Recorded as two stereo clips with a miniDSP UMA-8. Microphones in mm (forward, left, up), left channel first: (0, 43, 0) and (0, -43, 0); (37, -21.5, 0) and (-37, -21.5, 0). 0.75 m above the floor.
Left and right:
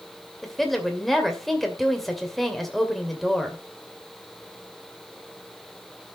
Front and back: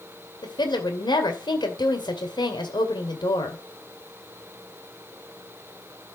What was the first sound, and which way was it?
A woman speaking, straight ahead.